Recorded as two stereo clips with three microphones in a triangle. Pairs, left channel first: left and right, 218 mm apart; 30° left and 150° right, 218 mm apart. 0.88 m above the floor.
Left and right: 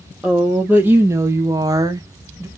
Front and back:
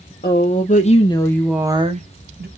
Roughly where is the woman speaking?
Ahead.